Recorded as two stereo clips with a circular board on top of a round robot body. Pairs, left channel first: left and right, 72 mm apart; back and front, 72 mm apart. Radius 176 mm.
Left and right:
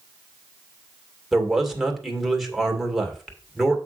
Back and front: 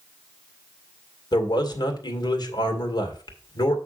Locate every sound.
1.3 s a man speaking: straight behind, 2.5 m